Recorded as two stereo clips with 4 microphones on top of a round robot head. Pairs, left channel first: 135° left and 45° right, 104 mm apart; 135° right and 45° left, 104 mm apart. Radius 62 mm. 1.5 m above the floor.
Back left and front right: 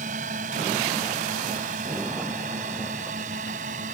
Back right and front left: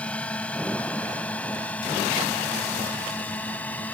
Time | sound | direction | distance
0.0 | a drone | 55° right | ?